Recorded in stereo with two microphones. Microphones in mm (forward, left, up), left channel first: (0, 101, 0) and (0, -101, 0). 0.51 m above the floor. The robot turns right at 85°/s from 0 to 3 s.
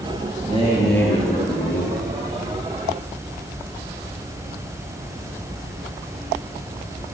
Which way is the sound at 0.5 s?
35° right.